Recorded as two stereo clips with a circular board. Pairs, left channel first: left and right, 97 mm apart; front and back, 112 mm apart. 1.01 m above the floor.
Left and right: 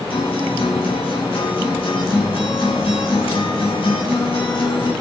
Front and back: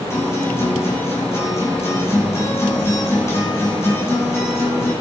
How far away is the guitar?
About 7.5 m.